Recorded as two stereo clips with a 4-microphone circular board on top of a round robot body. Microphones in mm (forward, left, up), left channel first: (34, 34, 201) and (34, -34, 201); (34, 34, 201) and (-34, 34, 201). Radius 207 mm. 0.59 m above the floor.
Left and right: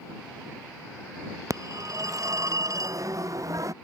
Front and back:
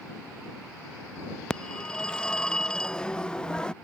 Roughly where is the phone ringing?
Right.